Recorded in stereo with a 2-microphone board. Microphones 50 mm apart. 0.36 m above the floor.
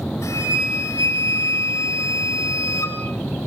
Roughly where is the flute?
Left.